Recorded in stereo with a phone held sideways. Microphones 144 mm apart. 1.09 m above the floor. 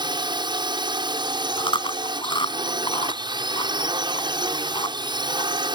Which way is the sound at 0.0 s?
30° right (ahead or behind).